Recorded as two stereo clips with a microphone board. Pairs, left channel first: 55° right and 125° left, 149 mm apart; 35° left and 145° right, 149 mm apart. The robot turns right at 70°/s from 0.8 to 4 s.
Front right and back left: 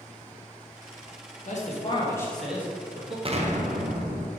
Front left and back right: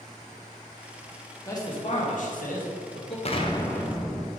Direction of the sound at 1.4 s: 35° right.